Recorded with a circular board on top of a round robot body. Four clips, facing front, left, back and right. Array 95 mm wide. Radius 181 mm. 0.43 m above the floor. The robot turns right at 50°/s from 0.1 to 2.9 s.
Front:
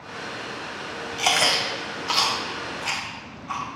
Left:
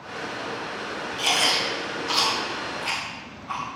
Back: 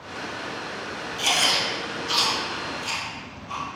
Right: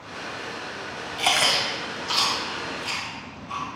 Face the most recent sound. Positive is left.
turn(degrees=40)